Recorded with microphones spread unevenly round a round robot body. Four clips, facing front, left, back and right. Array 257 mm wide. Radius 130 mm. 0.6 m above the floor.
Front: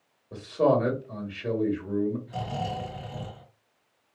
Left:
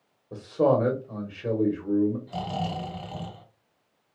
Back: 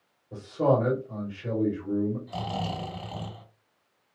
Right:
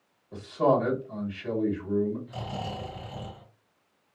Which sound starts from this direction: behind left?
Snoring, at 2.3 s.